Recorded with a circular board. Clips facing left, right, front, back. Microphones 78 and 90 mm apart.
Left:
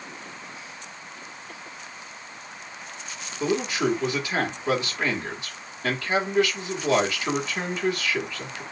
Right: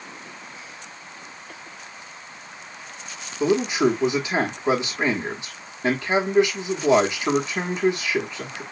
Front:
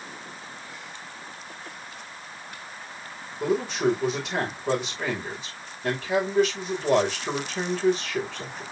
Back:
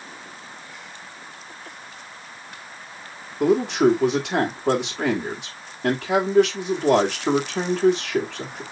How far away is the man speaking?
About 2.5 m.